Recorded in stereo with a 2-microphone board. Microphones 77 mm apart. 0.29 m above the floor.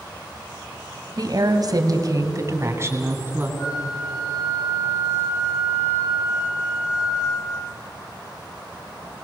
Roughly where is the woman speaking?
Right.